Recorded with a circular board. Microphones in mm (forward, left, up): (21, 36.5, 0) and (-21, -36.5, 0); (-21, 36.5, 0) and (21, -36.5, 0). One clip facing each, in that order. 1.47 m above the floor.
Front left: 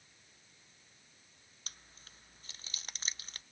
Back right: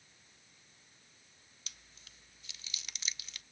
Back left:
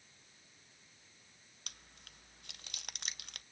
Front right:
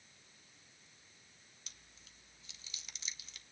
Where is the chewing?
105° left, 0.6 m.